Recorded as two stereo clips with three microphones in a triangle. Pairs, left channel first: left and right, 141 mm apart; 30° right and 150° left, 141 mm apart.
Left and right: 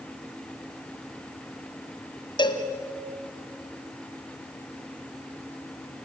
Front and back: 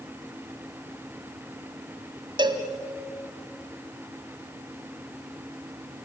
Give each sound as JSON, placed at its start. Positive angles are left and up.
{"t": 2.4, "sound": "a cowbell", "azimuth_deg": 120, "distance_m": 1.4}